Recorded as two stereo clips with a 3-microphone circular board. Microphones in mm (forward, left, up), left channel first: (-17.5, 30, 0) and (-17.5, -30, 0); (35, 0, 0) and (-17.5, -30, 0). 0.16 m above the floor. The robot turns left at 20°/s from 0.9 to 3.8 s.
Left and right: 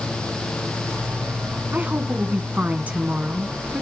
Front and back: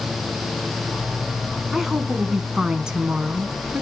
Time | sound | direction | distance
1.7 | a woman speaking | 65° right | 1.2 m